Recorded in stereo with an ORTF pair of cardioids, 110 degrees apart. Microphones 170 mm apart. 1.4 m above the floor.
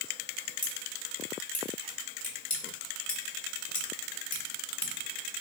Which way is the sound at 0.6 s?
30° left.